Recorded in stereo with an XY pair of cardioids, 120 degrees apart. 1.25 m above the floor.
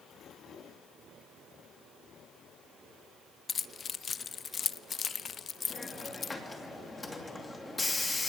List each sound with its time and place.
3.5 s keys jangling: 35° left, 0.6 m
5.7 s a hiss: 15° left, 2.5 m